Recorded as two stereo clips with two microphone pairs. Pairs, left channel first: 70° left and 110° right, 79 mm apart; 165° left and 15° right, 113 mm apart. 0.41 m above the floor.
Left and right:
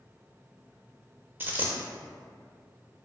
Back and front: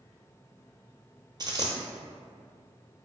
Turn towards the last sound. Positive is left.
turn(degrees=-50)